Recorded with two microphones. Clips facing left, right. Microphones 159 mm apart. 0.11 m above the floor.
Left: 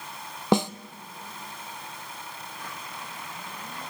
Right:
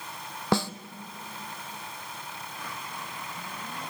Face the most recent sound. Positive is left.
turn(degrees=20)  # may be behind; listen again after turning